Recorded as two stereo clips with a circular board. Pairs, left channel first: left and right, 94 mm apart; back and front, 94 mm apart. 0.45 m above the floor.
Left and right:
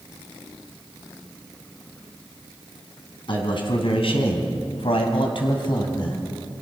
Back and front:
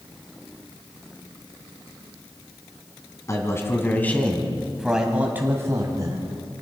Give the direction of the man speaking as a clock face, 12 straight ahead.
8 o'clock.